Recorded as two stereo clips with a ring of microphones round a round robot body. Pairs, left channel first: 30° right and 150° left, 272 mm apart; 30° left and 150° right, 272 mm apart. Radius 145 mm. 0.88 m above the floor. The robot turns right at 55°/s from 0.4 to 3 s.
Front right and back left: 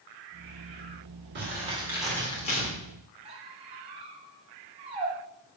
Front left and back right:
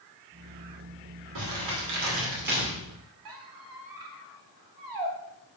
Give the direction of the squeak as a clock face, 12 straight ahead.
5 o'clock.